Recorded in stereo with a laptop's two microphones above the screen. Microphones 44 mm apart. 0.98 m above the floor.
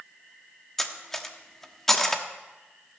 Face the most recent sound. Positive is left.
turn(degrees=10)  # may be behind; listen again after turning